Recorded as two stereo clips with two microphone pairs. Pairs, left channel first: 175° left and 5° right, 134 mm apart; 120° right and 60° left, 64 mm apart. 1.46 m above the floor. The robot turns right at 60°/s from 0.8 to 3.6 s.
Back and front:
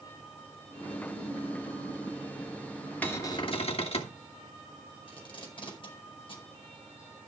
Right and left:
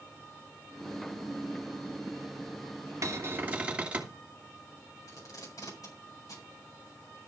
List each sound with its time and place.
3.0 s a cupboard door: 95° left, 2.5 m; by 4.2 s 130° left, 2.5 m
5.1 s tape being pulled: 135° right, 4.5 m